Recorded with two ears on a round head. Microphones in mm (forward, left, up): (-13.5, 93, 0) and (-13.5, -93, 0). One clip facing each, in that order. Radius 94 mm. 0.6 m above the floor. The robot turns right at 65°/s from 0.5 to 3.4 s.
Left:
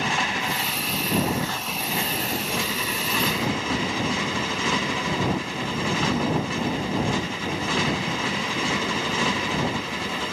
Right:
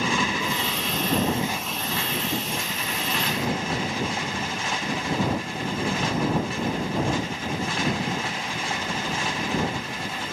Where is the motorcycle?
80° right; by 10.3 s 110° left.